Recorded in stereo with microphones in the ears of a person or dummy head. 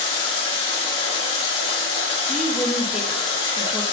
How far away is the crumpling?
No crumpling in this recording.